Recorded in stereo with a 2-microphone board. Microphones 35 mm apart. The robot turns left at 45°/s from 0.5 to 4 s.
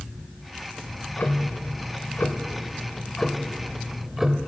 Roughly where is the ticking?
Behind left.